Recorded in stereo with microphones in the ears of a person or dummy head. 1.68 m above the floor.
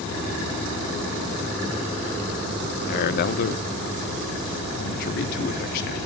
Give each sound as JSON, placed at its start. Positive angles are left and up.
{"t": 2.9, "sound": "a man speaking", "side_deg": 55, "distance_m": 1.0}